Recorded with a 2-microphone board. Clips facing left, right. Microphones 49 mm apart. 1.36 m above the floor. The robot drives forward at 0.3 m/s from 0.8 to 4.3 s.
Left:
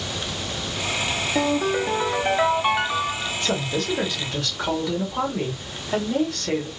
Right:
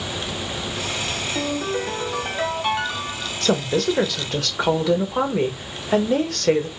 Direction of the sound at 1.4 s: 20° left (ahead or behind).